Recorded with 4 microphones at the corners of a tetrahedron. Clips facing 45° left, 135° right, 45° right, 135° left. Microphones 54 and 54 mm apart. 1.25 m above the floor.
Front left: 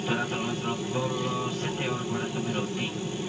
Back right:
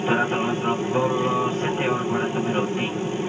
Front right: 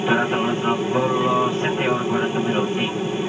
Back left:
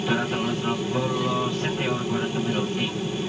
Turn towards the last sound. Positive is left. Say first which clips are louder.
# back right 7 dB, front right 5 dB
turn(degrees=-95)